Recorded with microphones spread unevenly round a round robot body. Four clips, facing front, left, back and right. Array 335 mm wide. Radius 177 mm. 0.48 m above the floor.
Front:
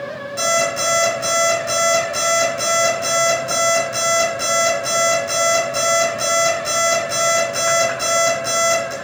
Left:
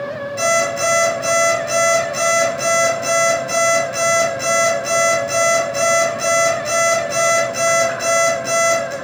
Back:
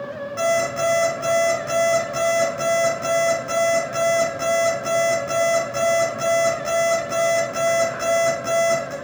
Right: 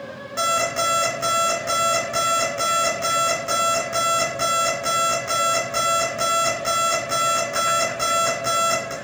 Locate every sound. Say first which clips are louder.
0.4 s an alarm clock: left 4 dB, even; 100° right, 3 m